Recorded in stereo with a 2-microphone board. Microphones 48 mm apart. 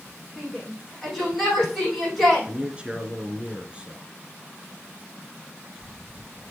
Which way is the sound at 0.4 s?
5° right (ahead or behind).